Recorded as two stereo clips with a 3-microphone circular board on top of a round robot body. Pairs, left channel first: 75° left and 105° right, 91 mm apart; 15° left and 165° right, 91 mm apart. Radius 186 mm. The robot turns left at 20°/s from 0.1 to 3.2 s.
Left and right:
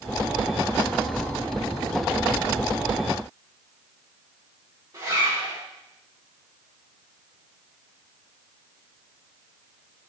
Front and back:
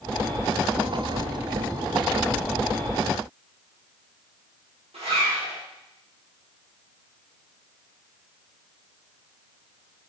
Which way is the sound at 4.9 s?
155° right.